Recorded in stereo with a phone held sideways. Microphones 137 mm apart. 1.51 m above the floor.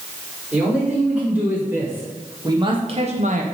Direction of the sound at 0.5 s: 5° right (ahead or behind).